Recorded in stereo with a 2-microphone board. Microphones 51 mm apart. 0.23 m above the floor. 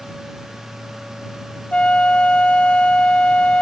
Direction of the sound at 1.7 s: 25° left (ahead or behind).